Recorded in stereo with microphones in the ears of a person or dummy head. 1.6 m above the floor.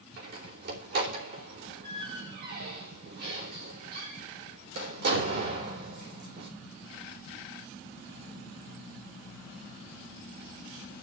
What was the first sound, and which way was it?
A door slam, 55° right (ahead or behind).